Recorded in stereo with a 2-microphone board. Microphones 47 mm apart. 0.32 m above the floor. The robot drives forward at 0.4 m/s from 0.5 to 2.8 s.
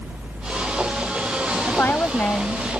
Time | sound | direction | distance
1.7 | a woman speaking | 45° left (ahead or behind) | ?